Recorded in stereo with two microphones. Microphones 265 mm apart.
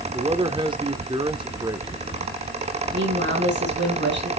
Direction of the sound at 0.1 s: 20° right (ahead or behind).